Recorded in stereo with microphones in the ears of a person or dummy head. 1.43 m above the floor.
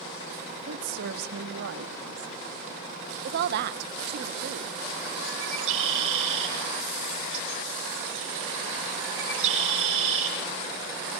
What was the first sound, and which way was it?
A woman speaking, 75° right (ahead or behind).